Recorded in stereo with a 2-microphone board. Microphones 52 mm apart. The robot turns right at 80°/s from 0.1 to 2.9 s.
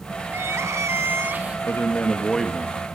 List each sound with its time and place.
0.3 s crying: 130° right, 1.4 m; by 1.6 s 25° right, 1.4 m
1.7 s a man speaking: 115° left, 2 m; by 2.8 s 155° right, 2 m